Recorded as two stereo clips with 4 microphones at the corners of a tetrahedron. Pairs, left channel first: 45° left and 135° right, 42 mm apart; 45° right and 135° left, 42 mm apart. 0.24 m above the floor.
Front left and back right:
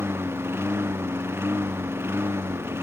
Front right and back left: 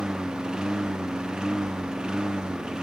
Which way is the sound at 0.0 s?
150° right.